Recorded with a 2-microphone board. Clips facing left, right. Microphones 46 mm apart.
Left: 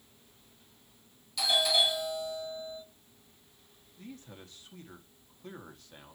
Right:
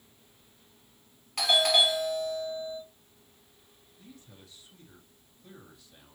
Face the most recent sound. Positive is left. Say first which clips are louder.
# left 5 dB
turn(degrees=50)  # may be behind; listen again after turning